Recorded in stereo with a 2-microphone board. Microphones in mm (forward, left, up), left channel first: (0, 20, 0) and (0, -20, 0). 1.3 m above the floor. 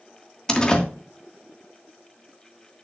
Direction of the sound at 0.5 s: 20° left (ahead or behind).